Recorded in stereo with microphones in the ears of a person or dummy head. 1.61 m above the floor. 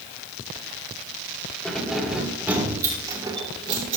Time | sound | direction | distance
1.6 | keys jangling | 5° left (ahead or behind) | 3 m